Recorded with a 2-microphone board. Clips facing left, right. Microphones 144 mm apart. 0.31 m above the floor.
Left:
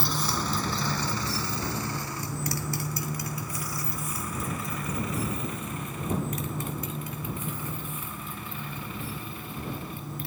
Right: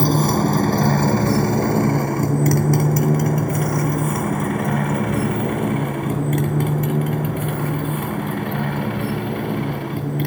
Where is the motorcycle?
55° right (ahead or behind); by 10.3 s 70° right (ahead or behind).